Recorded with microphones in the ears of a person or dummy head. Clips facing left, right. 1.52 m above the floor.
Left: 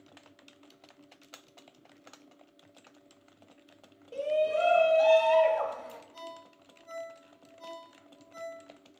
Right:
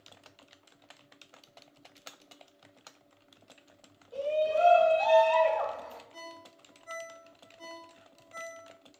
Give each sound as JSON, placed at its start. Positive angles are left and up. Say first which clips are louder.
{"t": 4.1, "sound": "a shout", "louder": "even", "side_deg": 30, "distance_m": 0.5}
{"t": 6.1, "sound": "a ringtone", "louder": "left 2 dB", "side_deg": -45, "distance_m": 0.8}